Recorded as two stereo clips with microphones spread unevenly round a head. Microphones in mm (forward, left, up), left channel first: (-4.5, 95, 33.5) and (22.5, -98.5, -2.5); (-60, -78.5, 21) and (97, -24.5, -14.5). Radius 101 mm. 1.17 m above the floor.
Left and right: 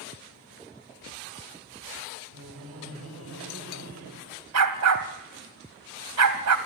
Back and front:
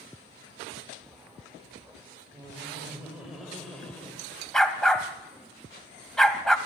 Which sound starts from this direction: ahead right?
Laughter, at 2.3 s.